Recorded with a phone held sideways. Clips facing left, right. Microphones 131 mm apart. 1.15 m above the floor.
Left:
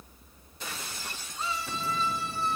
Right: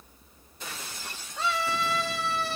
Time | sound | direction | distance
1.4 | a scream | 85° right | 5.5 m